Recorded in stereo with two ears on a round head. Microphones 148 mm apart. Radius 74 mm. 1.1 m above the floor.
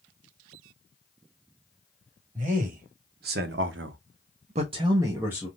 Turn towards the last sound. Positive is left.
turn(degrees=-10)  # may be behind; listen again after turning